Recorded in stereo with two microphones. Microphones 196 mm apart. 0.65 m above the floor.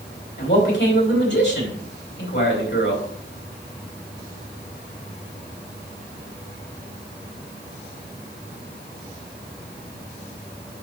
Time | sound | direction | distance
0.4 | a man speaking | 70° left (ahead or behind) | 4 m